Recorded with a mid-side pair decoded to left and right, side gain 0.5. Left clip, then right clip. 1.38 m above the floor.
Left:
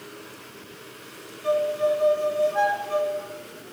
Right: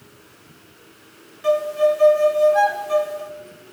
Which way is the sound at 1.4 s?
50° right.